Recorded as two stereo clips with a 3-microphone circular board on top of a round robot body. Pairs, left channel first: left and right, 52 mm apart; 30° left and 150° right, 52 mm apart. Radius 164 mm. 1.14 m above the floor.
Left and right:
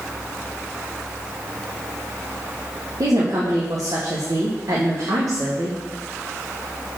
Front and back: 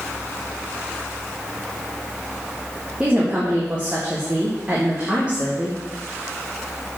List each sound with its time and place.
3.0 s a woman speaking: 75° right, 2 m